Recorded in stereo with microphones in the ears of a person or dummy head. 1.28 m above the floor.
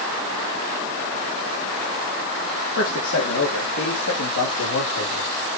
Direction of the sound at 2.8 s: 60° left (ahead or behind).